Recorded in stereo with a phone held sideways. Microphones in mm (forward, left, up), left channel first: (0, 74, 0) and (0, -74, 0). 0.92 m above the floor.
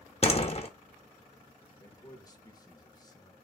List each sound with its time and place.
0.2 s a door slam: 45° left (ahead or behind), 0.5 m
1.8 s a man speaking: 25° left (ahead or behind), 0.8 m